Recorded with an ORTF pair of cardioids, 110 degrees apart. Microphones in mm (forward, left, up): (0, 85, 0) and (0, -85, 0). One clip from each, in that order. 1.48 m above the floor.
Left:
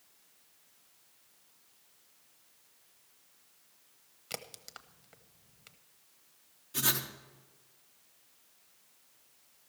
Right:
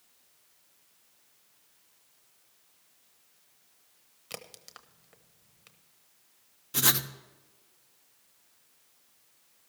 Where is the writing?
45° right, 1.0 m.